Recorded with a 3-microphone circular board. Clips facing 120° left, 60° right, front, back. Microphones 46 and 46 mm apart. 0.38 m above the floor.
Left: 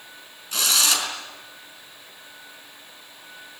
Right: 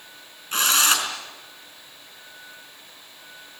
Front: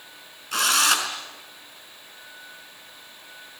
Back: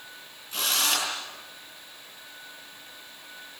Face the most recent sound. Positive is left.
turn(degrees=-10)